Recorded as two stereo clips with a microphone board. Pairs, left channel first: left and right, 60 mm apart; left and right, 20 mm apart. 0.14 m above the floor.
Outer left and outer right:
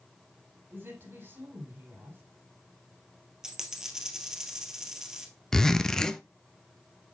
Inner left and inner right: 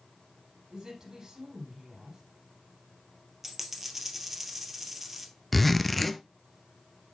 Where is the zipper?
10° left (ahead or behind), 0.5 m.